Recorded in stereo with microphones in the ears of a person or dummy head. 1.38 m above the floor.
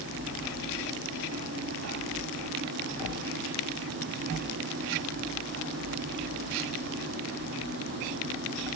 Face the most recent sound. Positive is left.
No sound to turn to.